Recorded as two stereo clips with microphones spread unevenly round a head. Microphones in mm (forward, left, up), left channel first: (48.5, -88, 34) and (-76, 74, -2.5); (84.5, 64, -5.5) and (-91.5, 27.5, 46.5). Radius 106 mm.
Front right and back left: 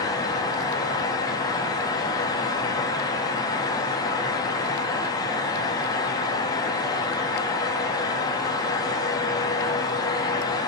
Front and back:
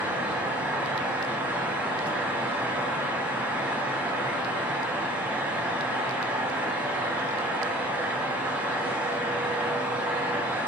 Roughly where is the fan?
Right.